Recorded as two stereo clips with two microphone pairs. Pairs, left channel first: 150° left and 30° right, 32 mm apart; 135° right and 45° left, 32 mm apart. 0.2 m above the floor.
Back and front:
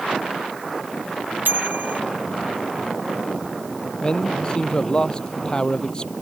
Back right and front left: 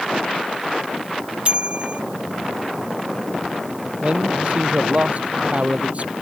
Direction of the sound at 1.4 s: 10° right.